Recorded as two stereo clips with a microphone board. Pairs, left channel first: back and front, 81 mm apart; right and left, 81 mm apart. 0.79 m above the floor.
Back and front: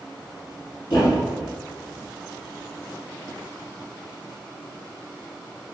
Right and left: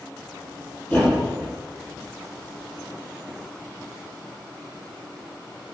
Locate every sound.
0.9 s a thud: 160° right, 1.4 m